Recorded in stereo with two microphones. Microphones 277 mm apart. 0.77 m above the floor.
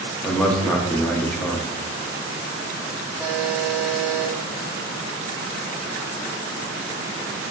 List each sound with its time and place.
0.2 s a man speaking: 5° left (ahead or behind), 0.7 m
3.2 s a buzzer: 10° right (ahead or behind), 0.8 m